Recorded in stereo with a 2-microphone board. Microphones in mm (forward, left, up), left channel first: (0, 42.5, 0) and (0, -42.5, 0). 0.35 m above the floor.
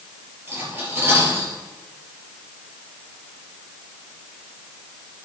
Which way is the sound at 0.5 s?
20° right (ahead or behind).